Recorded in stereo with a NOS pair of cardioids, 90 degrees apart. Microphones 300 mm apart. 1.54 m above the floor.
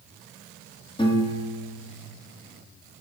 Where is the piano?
15° left, 2 m.